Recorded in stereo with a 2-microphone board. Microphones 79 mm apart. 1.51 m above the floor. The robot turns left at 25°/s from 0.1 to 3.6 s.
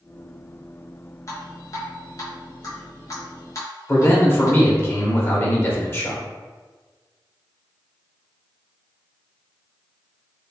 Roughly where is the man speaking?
Left.